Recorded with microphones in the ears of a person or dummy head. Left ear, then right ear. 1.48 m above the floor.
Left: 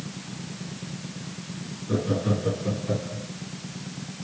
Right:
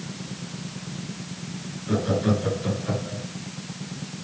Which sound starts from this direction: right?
Laughter, at 1.9 s.